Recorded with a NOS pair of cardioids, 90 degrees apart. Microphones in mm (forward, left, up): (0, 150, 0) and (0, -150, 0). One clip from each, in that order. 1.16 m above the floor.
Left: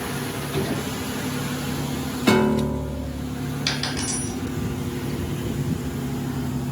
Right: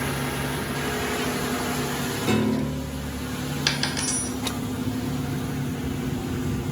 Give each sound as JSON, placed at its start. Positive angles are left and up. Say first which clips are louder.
{"t": 2.3, "sound": "a piano", "louder": "left 7 dB", "azimuth_deg": 65, "distance_m": 1.0}
{"t": 3.7, "sound": "a dropped coin", "louder": "right 1 dB", "azimuth_deg": -25, "distance_m": 1.4}